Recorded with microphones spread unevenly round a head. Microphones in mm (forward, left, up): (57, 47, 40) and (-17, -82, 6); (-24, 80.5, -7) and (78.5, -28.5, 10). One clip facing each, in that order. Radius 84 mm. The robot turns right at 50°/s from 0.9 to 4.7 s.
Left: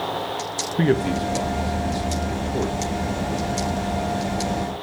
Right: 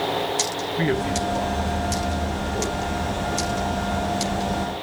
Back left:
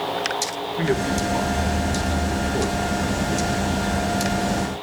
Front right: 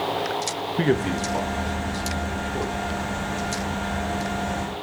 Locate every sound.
0.8 s a man speaking: 10° left, 1.9 m; by 2.8 s 105° left, 1.9 m